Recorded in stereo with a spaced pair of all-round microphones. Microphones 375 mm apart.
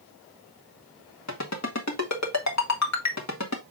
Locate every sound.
1.3 s a ringtone: 45° left (ahead or behind), 1.7 m